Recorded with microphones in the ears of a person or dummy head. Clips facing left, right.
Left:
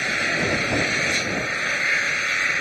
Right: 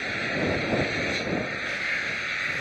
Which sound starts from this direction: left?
An engine running, at 0.0 s.